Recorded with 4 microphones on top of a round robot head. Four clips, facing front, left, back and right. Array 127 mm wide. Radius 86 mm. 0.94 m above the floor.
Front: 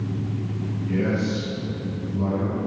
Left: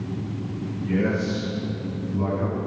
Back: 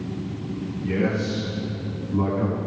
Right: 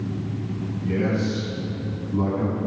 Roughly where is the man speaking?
Behind right.